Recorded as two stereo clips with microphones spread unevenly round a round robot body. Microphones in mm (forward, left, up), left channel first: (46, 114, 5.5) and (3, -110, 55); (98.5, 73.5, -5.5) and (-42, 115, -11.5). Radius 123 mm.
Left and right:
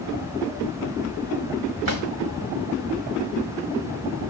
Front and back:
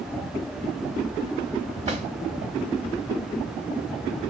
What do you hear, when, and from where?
1.9 s a drawer: 125° right, 1.5 m